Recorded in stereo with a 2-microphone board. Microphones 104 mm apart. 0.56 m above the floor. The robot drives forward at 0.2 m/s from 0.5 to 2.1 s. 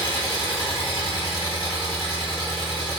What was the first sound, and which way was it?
An engine running, 55° left (ahead or behind).